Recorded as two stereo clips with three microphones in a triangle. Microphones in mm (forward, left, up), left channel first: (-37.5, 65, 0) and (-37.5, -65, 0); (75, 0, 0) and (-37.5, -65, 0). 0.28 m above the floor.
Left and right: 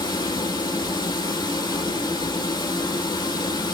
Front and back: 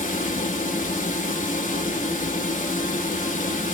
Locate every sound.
0.0 s running water: 35° left, 1.1 m